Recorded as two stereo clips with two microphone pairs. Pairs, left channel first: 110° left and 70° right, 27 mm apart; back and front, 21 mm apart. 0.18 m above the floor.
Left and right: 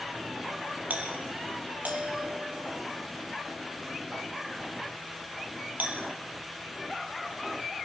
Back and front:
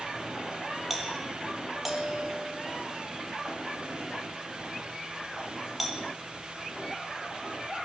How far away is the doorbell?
About 7 m.